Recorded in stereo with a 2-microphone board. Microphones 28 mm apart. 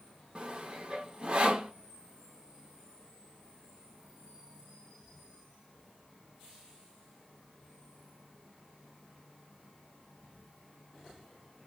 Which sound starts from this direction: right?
Sawing, at 0.3 s.